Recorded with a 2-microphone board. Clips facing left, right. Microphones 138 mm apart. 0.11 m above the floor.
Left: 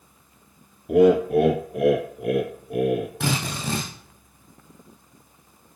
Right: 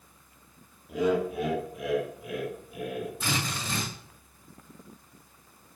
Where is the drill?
75° left (ahead or behind), 6.5 m.